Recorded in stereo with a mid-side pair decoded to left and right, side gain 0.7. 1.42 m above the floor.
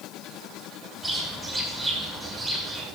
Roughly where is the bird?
Ahead.